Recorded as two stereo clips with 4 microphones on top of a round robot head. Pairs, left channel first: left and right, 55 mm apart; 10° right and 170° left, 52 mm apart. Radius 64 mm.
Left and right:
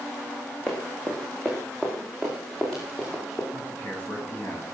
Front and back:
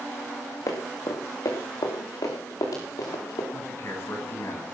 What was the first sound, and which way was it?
Running footsteps, 10° left.